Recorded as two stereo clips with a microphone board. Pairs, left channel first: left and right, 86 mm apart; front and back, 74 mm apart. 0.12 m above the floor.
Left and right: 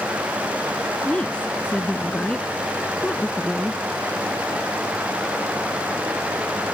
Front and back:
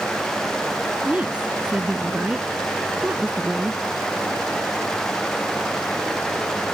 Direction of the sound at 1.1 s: 145° left.